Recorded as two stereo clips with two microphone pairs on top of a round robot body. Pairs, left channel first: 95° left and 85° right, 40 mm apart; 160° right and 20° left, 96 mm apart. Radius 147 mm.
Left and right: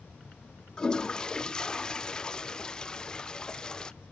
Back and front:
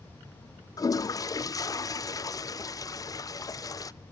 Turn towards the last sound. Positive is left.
turn(degrees=160)